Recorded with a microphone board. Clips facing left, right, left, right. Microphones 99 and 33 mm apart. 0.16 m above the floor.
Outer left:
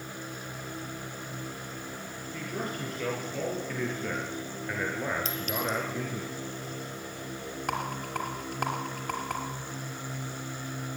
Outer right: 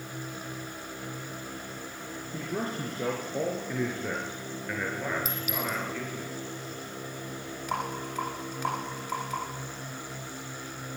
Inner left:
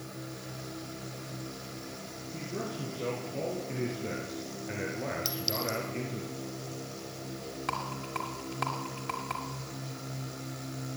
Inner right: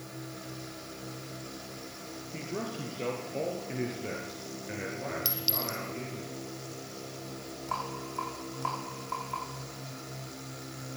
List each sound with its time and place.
2.3 s a man speaking: 30° right (ahead or behind), 3.5 m; by 6.2 s 25° left (ahead or behind), 2.5 m
5.2 s a clink: 10° right (ahead or behind), 1.8 m
7.7 s a rattle: 60° left (ahead or behind), 3 m